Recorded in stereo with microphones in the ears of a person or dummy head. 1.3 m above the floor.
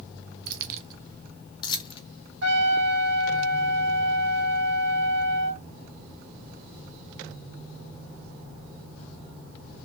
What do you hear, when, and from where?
0.5 s keys jangling: 60° right (ahead or behind), 0.6 m; by 2.0 s 30° left (ahead or behind), 1.3 m
2.4 s a trumpet: 70° right (ahead or behind), 1.9 m